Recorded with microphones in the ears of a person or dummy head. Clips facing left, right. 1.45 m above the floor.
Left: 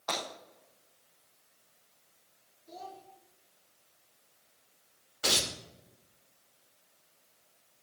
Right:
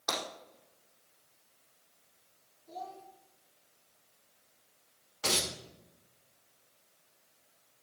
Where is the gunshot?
No gunshot in this recording.